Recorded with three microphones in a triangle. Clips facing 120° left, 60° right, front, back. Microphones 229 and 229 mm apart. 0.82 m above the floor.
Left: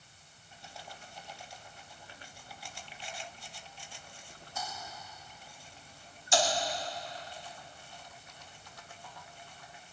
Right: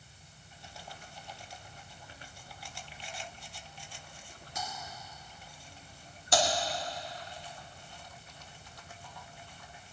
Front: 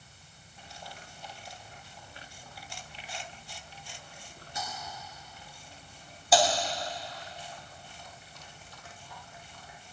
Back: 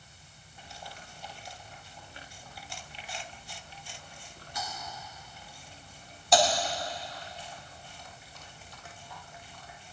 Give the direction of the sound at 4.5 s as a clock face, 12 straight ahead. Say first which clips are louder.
Right 1 dB, even; 2 o'clock.